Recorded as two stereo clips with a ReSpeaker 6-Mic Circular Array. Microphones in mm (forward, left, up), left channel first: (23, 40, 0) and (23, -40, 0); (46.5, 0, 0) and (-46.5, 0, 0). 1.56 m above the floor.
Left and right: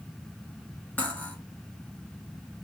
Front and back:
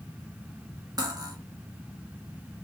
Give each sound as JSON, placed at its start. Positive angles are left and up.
{"t": 1.0, "sound": "cutlery clinking", "azimuth_deg": 155, "distance_m": 0.8}